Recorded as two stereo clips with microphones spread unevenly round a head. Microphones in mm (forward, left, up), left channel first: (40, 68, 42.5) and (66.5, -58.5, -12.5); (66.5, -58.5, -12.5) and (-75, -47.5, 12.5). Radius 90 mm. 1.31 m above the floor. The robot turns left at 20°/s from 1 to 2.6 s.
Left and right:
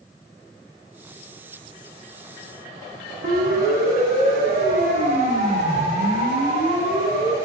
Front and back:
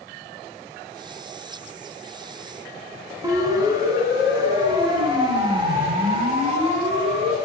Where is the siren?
120° right, 7 m; by 7.3 s 140° right, 9.5 m.